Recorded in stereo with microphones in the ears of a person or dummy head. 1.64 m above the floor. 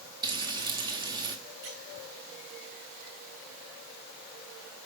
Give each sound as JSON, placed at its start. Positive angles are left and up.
{"t": 0.2, "sound": "frying", "side_deg": -25, "distance_m": 1.4}
{"t": 1.6, "sound": "a squeak", "side_deg": -40, "distance_m": 8.5}